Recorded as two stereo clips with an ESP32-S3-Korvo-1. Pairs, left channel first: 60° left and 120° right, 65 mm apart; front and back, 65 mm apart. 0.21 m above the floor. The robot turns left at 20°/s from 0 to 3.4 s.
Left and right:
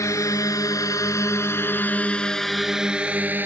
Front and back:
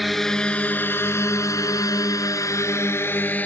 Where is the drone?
90° left; by 3.5 s 65° right.